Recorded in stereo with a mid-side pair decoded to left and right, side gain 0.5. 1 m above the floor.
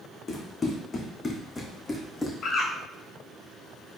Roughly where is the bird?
Ahead left.